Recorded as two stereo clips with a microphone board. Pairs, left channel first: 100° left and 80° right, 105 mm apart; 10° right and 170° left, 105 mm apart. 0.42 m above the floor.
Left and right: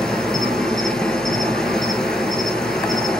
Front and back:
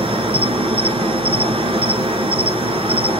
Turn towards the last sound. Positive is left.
turn(degrees=-175)